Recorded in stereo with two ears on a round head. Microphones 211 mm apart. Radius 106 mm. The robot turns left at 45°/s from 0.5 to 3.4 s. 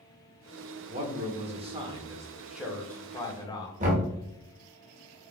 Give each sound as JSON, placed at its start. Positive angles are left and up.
{"t": 0.9, "sound": "a man speaking", "azimuth_deg": -100, "distance_m": 0.9}
{"t": 3.8, "sound": "knocking", "side_deg": -35, "distance_m": 1.3}